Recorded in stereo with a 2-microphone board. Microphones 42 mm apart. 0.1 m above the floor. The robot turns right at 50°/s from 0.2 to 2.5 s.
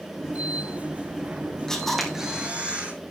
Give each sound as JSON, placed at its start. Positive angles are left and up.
{"t": 1.7, "sound": "a camera shutter", "azimuth_deg": 165, "distance_m": 3.0}